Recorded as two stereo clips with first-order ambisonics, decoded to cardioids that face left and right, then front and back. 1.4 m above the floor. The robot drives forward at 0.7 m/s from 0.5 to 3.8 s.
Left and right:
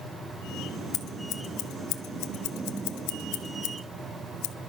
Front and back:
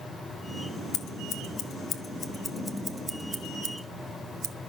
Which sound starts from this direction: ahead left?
Scissors, at 0.9 s.